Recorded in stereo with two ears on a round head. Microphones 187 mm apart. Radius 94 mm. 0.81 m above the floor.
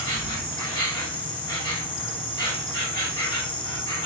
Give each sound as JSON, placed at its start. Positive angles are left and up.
{"t": 0.0, "sound": "an insect", "side_deg": 25, "distance_m": 2.0}